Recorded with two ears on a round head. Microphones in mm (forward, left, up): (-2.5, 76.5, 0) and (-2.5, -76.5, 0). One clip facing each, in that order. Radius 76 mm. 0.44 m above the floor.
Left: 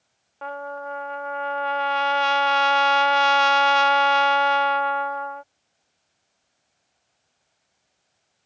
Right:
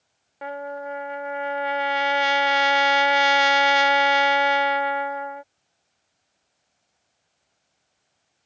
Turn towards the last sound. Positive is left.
turn(degrees=-20)  # may be behind; listen again after turning